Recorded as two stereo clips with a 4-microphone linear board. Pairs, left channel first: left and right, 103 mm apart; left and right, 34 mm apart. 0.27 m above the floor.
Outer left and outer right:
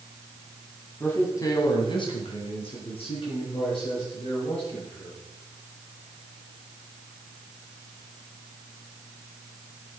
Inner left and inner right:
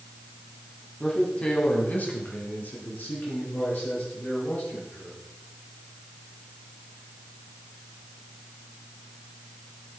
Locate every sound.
1.0 s a man speaking: 20° left (ahead or behind), 2 m; by 5.2 s 55° left (ahead or behind), 6.5 m